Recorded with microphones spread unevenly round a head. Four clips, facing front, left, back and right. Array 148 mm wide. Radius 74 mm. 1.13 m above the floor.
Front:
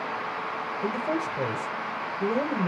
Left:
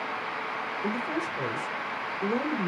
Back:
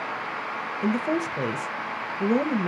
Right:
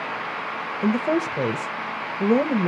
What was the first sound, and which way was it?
A woman speaking, 100° right.